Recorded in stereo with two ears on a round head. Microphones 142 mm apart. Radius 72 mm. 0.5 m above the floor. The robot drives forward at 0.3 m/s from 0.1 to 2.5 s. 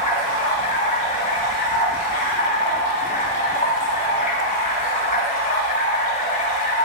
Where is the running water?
40° left (ahead or behind), 3.5 m; by 6.8 s 50° left (ahead or behind), 3 m.